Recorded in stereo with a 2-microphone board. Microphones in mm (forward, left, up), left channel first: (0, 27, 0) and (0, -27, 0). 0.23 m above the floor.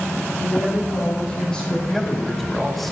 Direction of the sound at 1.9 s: 5° left (ahead or behind).